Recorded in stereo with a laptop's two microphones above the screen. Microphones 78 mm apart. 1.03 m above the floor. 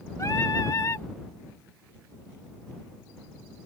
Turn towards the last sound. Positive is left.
turn(degrees=45)  # may be behind; listen again after turning